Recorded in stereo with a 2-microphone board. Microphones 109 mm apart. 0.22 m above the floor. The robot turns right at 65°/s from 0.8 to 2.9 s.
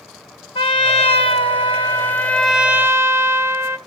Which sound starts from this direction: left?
A trumpet, at 0.6 s.